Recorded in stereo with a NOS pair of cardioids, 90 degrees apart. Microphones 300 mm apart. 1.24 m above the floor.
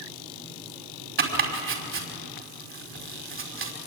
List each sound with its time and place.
1.2 s chopping: 45° right, 5.5 m